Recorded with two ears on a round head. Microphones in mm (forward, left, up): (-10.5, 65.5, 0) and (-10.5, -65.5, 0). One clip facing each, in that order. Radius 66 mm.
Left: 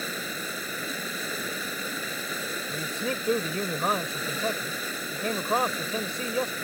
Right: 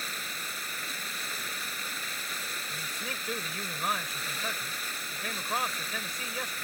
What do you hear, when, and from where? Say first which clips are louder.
0.0 s running water: left 7 dB; 85° left
2.7 s a man speaking: left 12 dB; 30° left (ahead or behind)